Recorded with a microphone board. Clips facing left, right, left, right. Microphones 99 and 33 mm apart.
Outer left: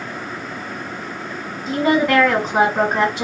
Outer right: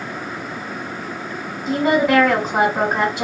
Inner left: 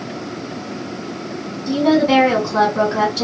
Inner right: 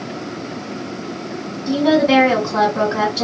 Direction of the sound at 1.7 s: Centre (ahead or behind).